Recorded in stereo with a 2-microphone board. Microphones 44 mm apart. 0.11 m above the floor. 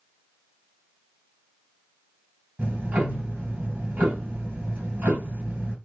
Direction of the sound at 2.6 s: 45° right (ahead or behind).